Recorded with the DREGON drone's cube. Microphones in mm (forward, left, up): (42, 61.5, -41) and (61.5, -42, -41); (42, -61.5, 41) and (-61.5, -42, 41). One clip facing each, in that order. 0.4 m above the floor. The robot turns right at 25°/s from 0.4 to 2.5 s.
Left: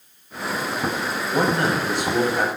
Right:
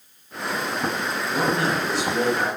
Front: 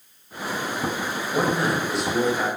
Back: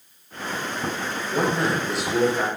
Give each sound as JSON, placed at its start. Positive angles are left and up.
{"t": 1.3, "sound": "a man speaking", "azimuth_deg": 65, "distance_m": 2.5}